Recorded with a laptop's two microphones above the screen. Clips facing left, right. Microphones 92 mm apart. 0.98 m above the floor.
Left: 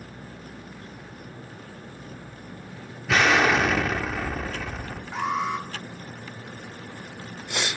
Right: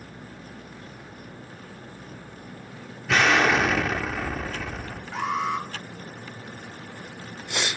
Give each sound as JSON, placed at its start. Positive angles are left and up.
{"t": 3.1, "sound": "an explosion", "side_deg": 5, "distance_m": 0.9}
{"t": 5.1, "sound": "an alarm", "side_deg": 10, "distance_m": 2.0}